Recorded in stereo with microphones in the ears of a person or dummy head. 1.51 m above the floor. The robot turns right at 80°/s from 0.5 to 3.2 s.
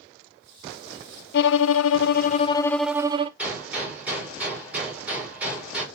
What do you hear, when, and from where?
1.3 s a violin: 60° left, 0.6 m; by 3.3 s 155° right, 0.6 m
3.4 s a gunshot: 10° right (ahead or behind), 5 m